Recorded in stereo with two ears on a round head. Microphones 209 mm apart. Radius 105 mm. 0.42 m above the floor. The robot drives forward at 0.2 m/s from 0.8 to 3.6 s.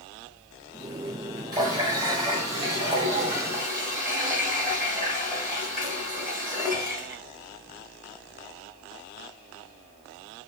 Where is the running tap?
20° right (ahead or behind), 1.2 m; by 7.2 s 15° right (ahead or behind), 1.5 m.